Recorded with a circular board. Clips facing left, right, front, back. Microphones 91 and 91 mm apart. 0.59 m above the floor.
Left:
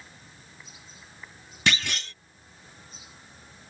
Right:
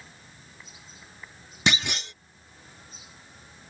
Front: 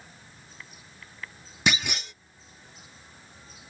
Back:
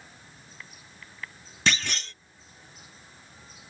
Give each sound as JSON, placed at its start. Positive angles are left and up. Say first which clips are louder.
{"t": 1.7, "sound": "a clunk", "louder": "right 1 dB, even", "azimuth_deg": -55}